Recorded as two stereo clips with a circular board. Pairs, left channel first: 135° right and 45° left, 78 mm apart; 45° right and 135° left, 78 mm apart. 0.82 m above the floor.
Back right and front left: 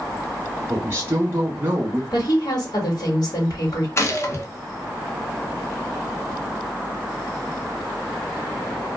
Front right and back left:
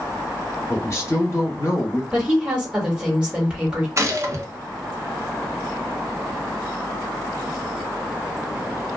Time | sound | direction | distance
0.7 | a man speaking | 5° right | 0.7 m
2.1 | a woman speaking | 150° right | 1.6 m
4.0 | a gunshot | 175° left | 0.7 m